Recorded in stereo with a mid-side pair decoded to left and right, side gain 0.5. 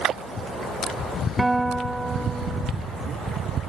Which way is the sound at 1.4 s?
10° right.